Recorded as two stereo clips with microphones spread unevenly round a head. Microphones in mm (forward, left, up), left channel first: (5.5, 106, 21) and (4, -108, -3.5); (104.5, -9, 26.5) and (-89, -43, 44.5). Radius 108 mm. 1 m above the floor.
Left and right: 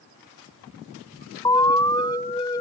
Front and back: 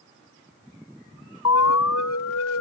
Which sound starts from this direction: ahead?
An alarm, at 1.4 s.